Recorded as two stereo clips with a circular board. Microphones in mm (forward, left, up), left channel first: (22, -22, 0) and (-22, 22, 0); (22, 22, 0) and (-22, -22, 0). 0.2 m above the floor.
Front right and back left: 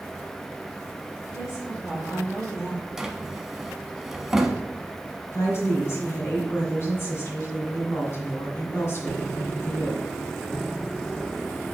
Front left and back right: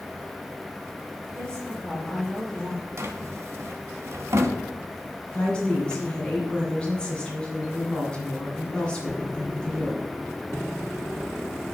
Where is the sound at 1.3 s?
25° right, 3.5 m.